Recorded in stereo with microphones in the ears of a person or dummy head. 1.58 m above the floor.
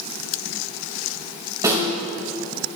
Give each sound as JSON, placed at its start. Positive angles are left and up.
{"t": 1.6, "sound": "a snare drum", "side_deg": -20, "distance_m": 4.5}